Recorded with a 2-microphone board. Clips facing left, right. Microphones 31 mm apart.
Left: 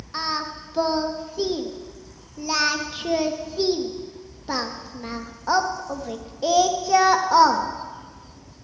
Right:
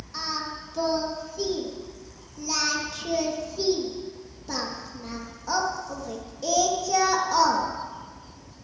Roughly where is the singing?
Left.